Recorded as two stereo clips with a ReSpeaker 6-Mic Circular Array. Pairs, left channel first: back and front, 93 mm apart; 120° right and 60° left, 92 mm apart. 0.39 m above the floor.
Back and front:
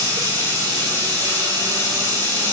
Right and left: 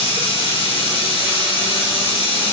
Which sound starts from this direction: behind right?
Running water, at 0.0 s.